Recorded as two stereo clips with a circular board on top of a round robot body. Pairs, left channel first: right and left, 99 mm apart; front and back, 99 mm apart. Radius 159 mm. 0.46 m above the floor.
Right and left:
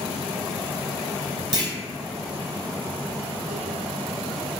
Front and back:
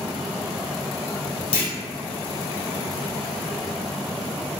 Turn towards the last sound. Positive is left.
turn(degrees=40)